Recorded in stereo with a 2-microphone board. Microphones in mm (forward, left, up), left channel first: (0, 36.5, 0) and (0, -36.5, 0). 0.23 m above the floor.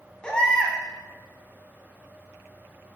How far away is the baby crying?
About 0.6 m.